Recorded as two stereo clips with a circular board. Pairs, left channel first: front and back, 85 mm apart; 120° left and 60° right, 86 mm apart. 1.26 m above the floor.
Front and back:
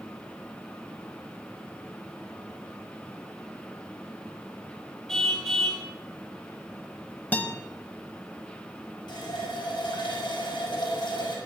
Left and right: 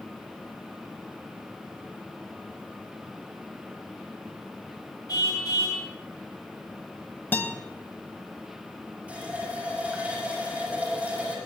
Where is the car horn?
85° left, 4 m.